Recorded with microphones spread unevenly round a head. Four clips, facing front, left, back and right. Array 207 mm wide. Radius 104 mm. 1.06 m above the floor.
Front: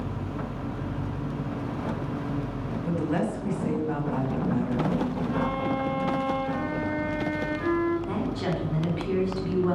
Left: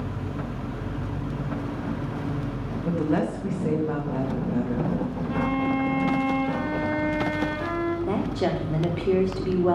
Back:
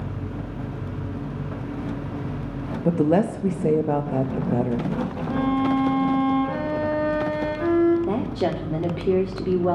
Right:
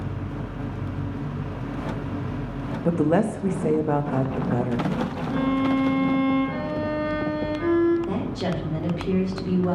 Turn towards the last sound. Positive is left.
turn(degrees=155)